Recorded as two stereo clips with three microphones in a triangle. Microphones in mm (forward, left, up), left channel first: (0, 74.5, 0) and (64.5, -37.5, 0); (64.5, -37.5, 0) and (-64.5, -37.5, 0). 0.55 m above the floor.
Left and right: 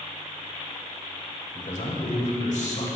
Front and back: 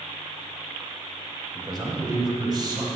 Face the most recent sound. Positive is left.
turn(degrees=125)